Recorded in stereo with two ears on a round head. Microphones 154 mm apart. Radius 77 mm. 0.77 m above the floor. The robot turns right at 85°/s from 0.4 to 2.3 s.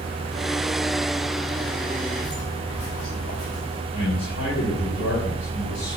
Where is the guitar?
No guitar in this recording.